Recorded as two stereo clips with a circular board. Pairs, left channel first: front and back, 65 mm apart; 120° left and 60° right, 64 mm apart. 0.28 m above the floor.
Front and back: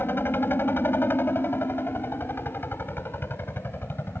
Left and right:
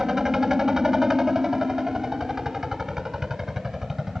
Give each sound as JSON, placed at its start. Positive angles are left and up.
{"t": 0.0, "sound": "a helicopter", "azimuth_deg": 15}